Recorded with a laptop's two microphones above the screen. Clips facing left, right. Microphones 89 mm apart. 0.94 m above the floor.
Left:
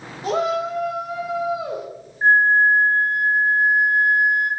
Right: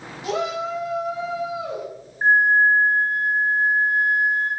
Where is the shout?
35° left (ahead or behind), 0.7 m.